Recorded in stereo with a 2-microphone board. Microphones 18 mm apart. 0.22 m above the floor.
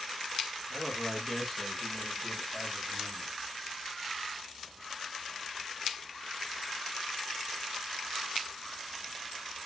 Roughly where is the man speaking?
Left.